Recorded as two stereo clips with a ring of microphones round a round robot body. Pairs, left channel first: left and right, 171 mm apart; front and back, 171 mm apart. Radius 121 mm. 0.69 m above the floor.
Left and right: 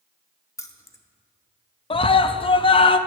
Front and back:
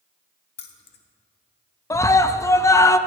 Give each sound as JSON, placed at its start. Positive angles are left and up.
{"t": 0.6, "sound": "keys jangling", "azimuth_deg": 20, "distance_m": 1.1}
{"t": 1.9, "sound": "a scream", "azimuth_deg": 60, "distance_m": 0.6}